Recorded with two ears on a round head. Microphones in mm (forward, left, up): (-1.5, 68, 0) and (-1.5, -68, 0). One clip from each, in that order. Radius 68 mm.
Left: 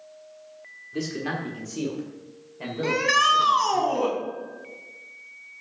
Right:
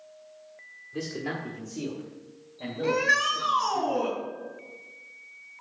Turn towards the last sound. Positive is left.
turn(degrees=65)  # may be behind; listen again after turning